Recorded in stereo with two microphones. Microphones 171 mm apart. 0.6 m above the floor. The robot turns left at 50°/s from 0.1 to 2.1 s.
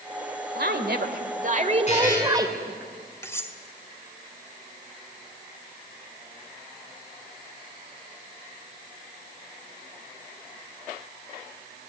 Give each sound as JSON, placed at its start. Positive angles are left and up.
{"t": 0.6, "sound": "a woman speaking", "azimuth_deg": -80, "distance_m": 2.5}
{"t": 1.9, "sound": "a buzzer", "side_deg": 40, "distance_m": 7.5}
{"t": 3.2, "sound": "cutlery clinking", "side_deg": 15, "distance_m": 1.7}